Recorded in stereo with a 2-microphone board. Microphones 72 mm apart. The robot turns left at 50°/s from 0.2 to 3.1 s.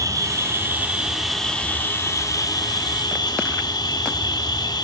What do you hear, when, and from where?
0.0 s an insect: 125° right, 1.2 m; by 4.8 s 90° left, 1.2 m